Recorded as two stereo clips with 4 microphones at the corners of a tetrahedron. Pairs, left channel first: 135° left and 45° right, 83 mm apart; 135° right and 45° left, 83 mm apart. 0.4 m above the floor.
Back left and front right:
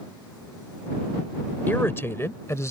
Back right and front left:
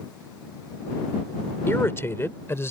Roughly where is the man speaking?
Behind.